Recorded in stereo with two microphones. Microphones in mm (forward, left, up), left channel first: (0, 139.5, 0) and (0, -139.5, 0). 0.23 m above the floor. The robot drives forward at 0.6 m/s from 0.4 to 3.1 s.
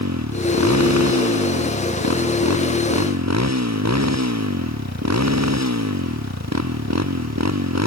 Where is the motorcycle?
75° right (ahead or behind); by 7.9 s 70° right (ahead or behind).